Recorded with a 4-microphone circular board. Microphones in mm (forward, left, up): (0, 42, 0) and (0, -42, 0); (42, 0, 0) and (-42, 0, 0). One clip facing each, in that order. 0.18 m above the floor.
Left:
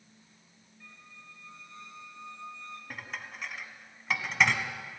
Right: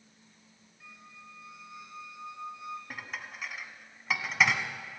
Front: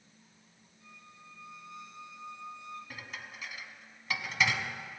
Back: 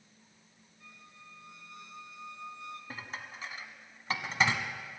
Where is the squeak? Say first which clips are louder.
Right 2 dB, even; 165° right, 1.4 m.